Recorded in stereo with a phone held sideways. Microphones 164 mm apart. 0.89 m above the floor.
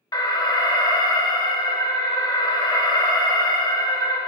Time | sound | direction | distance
0.1 | an alarm | 25° left (ahead or behind) | 0.7 m